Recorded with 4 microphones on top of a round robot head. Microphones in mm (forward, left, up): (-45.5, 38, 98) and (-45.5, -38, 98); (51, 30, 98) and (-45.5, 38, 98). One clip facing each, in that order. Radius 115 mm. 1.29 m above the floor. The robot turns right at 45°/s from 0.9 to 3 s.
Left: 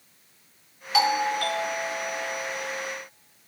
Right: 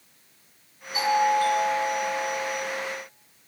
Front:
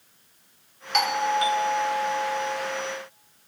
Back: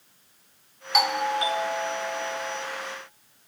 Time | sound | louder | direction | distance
0.9 | a doorbell | right 2 dB, front 1 dB | 90° left | 0.9 m